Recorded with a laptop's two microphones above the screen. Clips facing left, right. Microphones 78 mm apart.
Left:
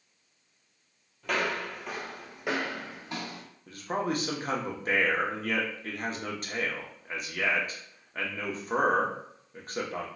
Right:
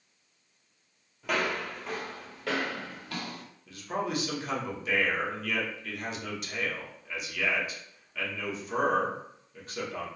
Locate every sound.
1.2 s footsteps: 5° right (ahead or behind), 1.1 m; by 3.4 s 25° left (ahead or behind), 1.2 m
3.7 s a man speaking: 40° left (ahead or behind), 0.9 m